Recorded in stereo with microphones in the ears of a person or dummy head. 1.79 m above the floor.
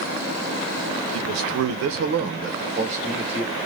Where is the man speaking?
70° right (ahead or behind), 0.6 m; by 3.6 s 10° right (ahead or behind), 1.0 m.